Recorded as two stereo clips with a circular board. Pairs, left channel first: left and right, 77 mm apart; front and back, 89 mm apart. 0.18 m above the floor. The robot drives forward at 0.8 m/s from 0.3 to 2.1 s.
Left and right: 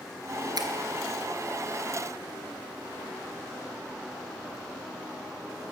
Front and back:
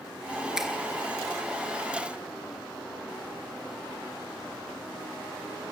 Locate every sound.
0.6 s a finger snap: 95° right, 3 m; by 0.7 s 100° right, 3 m